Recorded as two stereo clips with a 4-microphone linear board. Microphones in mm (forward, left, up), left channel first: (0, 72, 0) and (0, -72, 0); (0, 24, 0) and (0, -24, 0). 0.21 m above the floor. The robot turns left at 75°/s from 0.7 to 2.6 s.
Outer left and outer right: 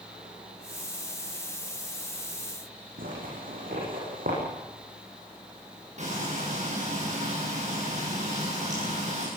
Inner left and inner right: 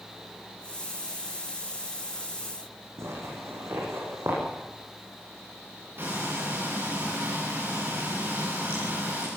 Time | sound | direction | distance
3.0 | a zipper | 80° right | 8.5 m
6.0 | frying | 55° right (ahead or behind) | 9.5 m